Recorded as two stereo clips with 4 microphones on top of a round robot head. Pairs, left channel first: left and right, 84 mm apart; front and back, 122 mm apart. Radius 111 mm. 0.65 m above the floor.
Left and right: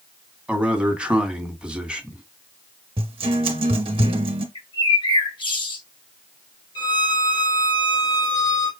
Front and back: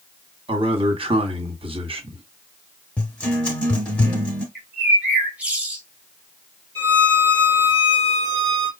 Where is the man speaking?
165° right, 1.6 m.